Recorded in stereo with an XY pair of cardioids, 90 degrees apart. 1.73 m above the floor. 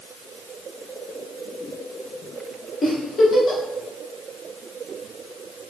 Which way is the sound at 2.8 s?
35° left.